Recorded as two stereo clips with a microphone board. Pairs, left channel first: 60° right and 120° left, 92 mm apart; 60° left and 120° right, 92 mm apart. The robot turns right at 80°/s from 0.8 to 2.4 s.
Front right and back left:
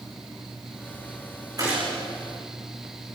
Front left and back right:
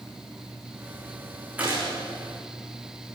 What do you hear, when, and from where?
1.6 s a gunshot: 170° left, 7.5 m; by 1.9 s 165° right, 7.5 m